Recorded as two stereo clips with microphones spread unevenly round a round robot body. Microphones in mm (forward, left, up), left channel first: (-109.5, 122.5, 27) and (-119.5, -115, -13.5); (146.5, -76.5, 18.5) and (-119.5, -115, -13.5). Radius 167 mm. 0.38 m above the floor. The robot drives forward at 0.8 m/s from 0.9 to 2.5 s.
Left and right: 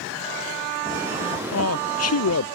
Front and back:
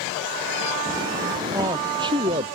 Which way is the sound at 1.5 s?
110° left.